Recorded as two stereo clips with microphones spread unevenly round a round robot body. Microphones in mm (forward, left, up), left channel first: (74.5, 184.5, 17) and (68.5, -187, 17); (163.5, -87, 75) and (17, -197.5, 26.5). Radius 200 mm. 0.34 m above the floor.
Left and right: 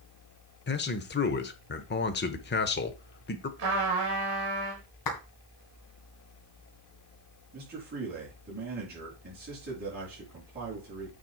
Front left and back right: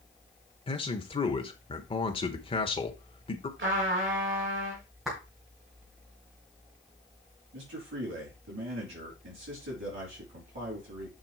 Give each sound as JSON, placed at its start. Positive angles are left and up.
{"t": 0.7, "sound": "a man speaking", "azimuth_deg": 100, "distance_m": 0.9}
{"t": 3.6, "sound": "a trumpet", "azimuth_deg": -135, "distance_m": 4.0}
{"t": 5.0, "sound": "a clap", "azimuth_deg": 135, "distance_m": 2.0}
{"t": 7.5, "sound": "a man speaking", "azimuth_deg": -160, "distance_m": 5.0}